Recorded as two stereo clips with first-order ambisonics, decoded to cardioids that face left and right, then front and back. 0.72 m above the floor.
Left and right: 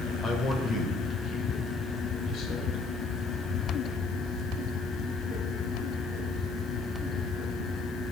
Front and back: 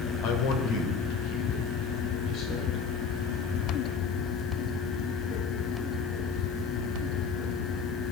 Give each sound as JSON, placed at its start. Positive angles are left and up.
{"t": 0.2, "sound": "a man speaking", "azimuth_deg": 20, "distance_m": 2.5}